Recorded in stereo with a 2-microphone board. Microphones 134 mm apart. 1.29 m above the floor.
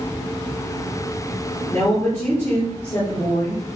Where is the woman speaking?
15° left (ahead or behind), 4.5 m.